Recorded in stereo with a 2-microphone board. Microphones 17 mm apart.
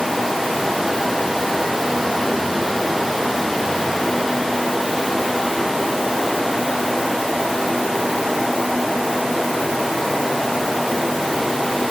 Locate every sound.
Only background noise.